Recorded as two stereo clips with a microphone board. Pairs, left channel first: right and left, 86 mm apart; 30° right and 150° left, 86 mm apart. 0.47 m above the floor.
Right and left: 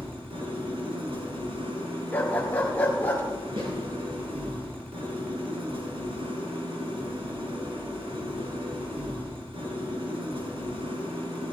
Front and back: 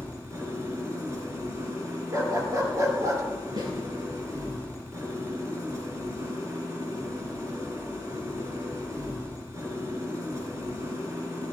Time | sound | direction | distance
0.0 | an engine running | 95° left | 3 m
2.1 | a dog barking | 160° right | 2 m
3.6 | a snare drum | 110° left | 5 m